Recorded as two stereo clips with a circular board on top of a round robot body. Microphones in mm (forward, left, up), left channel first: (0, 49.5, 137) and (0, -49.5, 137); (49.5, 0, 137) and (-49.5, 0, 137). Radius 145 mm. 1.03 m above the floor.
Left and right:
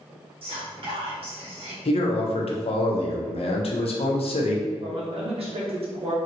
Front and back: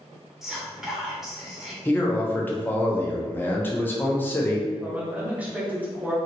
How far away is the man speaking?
About 0.7 m.